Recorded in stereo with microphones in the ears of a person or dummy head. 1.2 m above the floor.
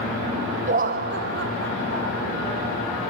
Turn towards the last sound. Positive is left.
turn(degrees=-65)  # may be behind; listen again after turning